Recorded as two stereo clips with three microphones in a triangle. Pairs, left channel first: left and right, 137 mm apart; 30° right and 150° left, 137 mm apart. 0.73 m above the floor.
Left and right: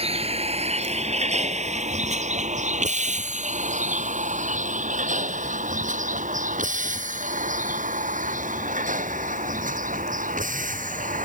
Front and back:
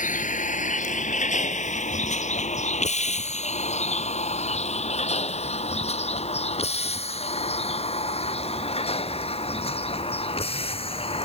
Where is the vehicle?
45° right; by 11.3 s 75° right.